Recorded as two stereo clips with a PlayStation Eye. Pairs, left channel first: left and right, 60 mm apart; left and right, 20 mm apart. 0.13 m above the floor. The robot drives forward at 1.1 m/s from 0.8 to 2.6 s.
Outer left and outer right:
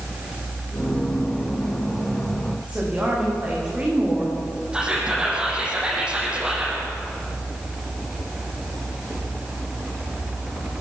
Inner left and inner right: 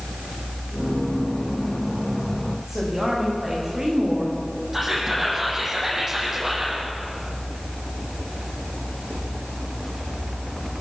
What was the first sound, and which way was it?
A woman speaking, 25° right (ahead or behind).